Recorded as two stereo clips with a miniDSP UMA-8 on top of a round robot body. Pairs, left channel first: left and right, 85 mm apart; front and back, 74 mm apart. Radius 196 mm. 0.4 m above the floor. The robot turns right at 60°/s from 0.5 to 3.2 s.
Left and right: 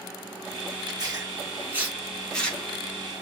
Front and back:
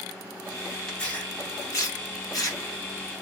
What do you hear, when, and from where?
0.9 s tearing paper: 80° right, 2.0 m; by 3.1 s 55° left, 2.0 m